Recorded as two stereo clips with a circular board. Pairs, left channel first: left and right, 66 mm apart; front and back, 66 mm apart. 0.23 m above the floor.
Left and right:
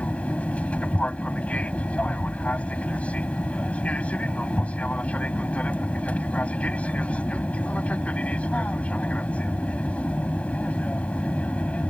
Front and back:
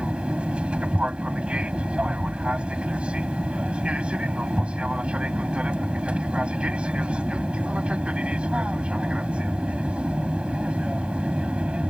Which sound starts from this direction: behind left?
An aircraft, at 0.0 s.